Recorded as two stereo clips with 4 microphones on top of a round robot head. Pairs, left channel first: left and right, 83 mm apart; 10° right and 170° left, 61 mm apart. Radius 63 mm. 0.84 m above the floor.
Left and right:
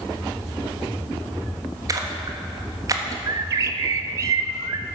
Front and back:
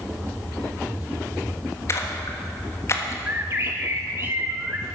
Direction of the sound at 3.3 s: 120° right.